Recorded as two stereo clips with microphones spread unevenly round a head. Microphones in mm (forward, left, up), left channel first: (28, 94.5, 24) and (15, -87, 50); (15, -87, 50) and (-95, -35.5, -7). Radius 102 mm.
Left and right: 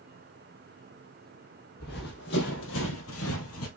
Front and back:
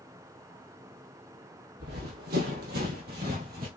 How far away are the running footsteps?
About 2.5 m.